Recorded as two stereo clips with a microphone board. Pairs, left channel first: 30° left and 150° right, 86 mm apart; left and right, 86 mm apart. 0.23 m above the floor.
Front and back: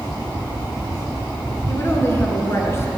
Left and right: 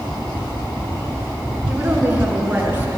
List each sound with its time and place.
1.7 s a woman speaking: 25° right, 2.5 m